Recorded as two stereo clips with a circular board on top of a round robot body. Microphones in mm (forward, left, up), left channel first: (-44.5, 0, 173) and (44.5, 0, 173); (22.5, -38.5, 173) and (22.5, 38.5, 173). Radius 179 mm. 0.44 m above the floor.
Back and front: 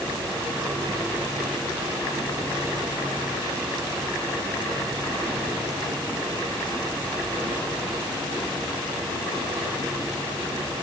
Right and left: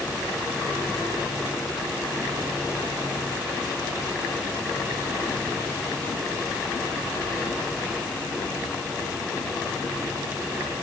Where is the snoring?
I don't hear snoring.